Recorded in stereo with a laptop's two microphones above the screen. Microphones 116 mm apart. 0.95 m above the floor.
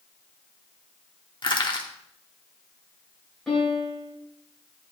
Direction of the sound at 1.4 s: 45° left (ahead or behind).